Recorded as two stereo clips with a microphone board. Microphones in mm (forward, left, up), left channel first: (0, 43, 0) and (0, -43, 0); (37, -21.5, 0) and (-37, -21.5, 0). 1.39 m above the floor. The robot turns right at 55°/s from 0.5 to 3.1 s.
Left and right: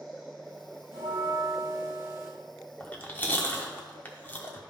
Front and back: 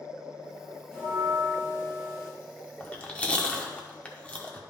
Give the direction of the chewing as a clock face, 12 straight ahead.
11 o'clock.